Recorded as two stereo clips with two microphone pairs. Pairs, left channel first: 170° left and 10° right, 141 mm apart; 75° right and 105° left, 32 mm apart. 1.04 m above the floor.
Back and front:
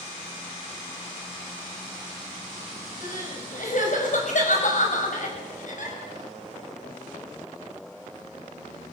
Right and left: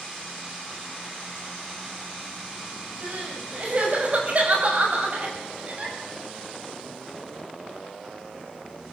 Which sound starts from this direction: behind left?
Crying, at 3.0 s.